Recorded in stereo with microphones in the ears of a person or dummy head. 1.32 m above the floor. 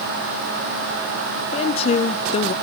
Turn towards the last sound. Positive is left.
turn(degrees=35)  # may be behind; listen again after turning